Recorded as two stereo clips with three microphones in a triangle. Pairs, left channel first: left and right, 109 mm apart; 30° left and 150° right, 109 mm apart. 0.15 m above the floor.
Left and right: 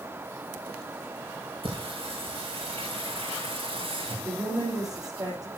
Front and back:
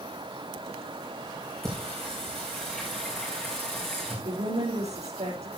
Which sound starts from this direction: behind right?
A woman speaking, at 4.2 s.